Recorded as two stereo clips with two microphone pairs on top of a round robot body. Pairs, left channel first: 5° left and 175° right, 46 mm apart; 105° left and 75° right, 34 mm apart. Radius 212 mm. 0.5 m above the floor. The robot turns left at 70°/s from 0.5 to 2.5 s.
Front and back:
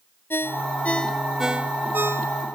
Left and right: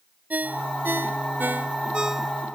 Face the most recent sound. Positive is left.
turn(degrees=-170)